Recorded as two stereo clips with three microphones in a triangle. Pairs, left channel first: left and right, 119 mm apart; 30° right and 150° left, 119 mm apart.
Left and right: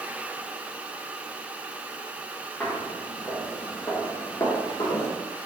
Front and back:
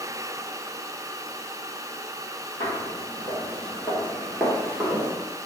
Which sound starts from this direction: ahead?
Footsteps, at 2.6 s.